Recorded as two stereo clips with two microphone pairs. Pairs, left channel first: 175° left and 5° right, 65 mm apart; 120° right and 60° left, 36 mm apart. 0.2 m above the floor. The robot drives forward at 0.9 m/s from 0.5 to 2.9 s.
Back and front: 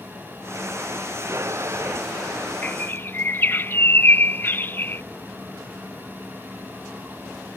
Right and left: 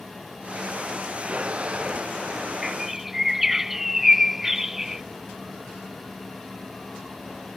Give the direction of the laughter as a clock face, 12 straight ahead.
I don't hear laughter.